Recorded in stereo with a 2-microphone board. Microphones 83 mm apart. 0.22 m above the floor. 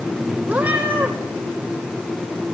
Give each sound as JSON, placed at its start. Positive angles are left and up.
{"t": 0.5, "sound": "a cat meowing", "side_deg": -15, "distance_m": 3.0}